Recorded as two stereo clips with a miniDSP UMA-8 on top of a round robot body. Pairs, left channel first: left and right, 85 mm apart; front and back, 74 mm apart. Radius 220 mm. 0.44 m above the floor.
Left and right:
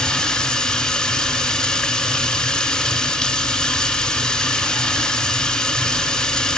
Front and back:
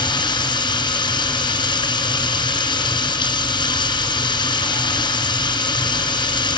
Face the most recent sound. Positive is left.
turn(degrees=5)